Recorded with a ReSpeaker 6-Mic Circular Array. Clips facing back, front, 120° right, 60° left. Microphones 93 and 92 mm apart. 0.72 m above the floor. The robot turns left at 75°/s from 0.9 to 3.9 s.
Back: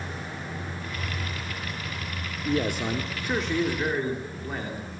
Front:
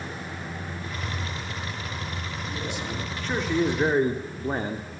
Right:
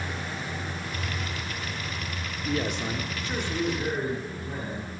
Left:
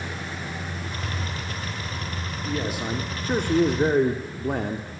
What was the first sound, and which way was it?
A man speaking, 165° left.